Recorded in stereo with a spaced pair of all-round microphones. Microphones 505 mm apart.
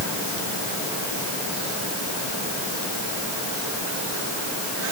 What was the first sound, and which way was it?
Only background noise.